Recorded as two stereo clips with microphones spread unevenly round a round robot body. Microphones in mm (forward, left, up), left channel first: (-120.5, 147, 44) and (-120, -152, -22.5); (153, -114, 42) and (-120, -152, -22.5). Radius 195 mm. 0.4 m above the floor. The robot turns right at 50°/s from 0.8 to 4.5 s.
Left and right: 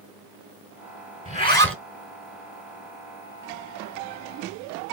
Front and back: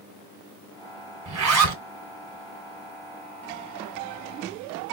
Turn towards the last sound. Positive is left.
turn(degrees=-40)